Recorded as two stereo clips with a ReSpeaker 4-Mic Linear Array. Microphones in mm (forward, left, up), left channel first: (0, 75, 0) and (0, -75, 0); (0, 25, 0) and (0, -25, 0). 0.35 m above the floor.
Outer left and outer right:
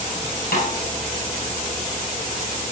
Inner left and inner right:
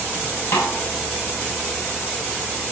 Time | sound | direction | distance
0.5 | a snare drum | 85° left | 7.5 m